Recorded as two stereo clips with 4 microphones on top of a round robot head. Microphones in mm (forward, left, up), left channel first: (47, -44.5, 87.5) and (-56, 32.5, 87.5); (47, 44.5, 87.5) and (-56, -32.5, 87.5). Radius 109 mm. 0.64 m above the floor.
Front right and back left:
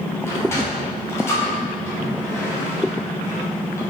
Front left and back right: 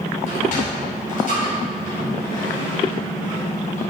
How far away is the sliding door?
About 3 m.